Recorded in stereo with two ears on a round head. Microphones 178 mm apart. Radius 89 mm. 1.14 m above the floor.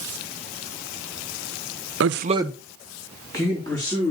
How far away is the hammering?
I don't hear hammering.